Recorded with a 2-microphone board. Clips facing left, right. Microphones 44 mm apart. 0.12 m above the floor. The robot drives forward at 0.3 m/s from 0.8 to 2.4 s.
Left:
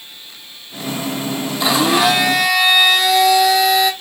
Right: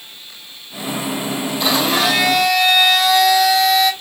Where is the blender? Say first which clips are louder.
Left 3 dB; 5° left (ahead or behind), 0.8 m.